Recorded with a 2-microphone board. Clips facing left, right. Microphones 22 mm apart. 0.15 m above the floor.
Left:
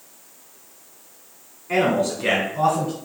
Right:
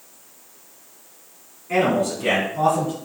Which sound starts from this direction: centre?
A man speaking, at 1.7 s.